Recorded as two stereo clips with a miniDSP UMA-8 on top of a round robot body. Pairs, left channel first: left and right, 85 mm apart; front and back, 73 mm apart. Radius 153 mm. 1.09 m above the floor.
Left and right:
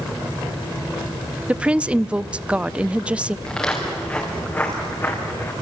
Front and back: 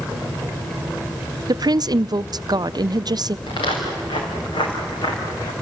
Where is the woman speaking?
165° right, 0.6 m.